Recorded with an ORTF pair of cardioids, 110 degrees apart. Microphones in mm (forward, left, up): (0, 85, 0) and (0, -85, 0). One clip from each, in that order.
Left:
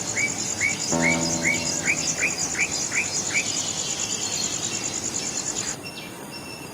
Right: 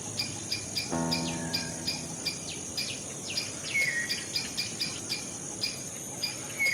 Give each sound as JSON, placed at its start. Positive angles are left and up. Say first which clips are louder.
{"t": 0.9, "sound": "a guitar", "louder": "left 7 dB", "azimuth_deg": 30, "distance_m": 0.9}